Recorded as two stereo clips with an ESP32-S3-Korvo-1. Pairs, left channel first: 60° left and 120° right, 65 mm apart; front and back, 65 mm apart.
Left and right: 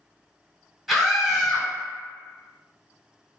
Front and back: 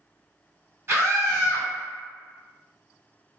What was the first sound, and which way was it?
A scream, 155° left.